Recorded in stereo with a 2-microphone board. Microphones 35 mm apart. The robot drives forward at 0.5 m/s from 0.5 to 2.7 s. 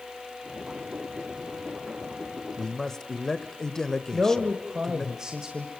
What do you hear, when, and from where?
2.6 s a man speaking: 10° left (ahead or behind), 1.3 m; by 5.1 s 15° left (ahead or behind), 1.3 m
4.1 s a man speaking: 20° right (ahead or behind), 1.8 m